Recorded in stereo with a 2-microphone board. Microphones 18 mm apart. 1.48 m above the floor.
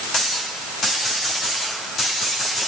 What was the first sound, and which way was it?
Only background noise.